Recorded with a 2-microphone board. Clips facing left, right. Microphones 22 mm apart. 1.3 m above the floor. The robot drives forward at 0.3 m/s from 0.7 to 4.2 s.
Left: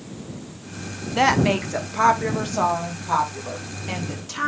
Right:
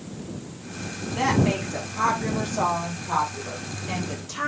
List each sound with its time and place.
1.1 s a woman speaking: 30° left (ahead or behind), 0.6 m; by 4.5 s 10° left (ahead or behind), 1.4 m